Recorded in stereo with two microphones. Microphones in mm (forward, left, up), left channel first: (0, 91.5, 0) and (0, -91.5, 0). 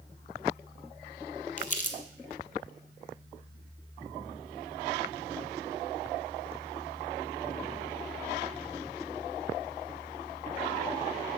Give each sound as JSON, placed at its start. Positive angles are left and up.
{"t": 1.6, "sound": "crumpling", "side_deg": 45, "distance_m": 0.9}